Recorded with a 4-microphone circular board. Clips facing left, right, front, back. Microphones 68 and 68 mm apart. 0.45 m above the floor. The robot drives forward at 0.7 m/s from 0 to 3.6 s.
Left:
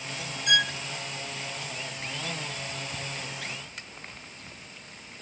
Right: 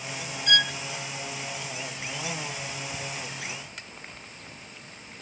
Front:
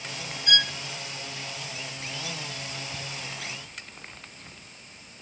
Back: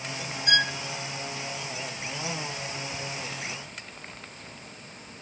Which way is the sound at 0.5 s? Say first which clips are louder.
Right 1 dB, back 2 dB; 155° left.